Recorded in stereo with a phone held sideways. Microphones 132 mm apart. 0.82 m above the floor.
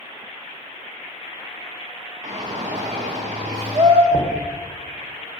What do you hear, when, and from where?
2.2 s a shout: 75° right (ahead or behind), 2 m
4.1 s knocking: 50° right (ahead or behind), 2.5 m